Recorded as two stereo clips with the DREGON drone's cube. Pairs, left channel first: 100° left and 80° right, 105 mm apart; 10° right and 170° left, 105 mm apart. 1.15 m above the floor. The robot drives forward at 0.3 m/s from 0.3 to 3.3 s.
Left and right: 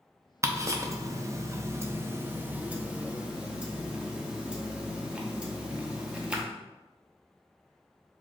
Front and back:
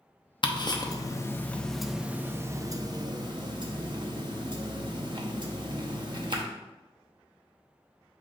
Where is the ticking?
30° right, 0.6 m; by 6.4 s 155° right, 0.7 m.